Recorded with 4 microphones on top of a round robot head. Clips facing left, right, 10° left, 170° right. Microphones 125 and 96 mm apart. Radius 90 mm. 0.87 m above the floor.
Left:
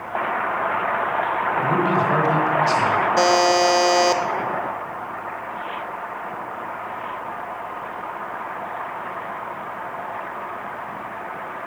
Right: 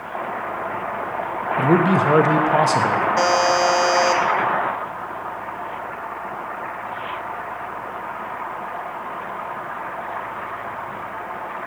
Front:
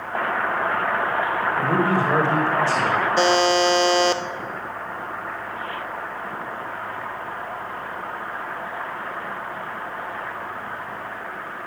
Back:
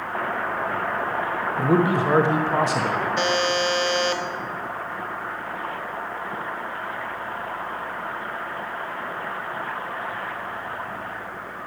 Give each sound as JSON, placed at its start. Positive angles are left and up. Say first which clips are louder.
{"t": 1.6, "sound": "a man speaking", "louder": "right 5 dB, back 2 dB", "azimuth_deg": -105, "distance_m": 1.2}
{"t": 3.2, "sound": "a buzzer", "louder": "left 2 dB, front 7 dB", "azimuth_deg": 35, "distance_m": 0.6}